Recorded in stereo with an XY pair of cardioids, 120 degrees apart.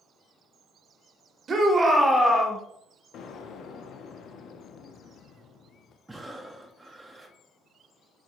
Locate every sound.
1.5 s a shout: 40° right, 1.0 m; by 2.6 s 20° left, 1.4 m
3.1 s an explosion: 60° left, 0.5 m
6.1 s breathing: 10° right, 0.7 m